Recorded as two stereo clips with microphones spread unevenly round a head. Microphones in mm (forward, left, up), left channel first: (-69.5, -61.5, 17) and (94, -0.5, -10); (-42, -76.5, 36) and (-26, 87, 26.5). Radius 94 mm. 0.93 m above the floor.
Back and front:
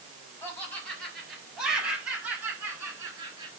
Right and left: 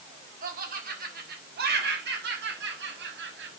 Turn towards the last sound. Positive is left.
turn(degrees=90)